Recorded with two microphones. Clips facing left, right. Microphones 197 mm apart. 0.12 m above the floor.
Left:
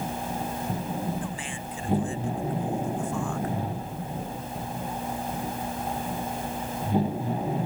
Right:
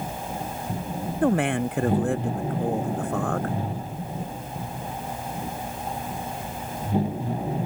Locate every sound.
1.2 s a man speaking: 65° right (ahead or behind)